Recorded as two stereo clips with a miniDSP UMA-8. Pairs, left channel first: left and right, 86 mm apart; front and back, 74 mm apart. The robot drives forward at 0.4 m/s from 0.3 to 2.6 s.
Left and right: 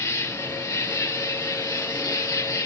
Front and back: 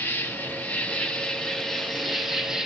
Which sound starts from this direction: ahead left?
An insect, at 0.0 s.